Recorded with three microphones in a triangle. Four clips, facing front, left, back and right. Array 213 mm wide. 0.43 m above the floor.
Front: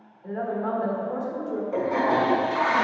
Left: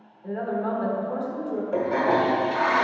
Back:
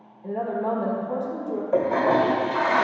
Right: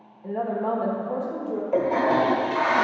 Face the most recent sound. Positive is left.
turn(degrees=-165)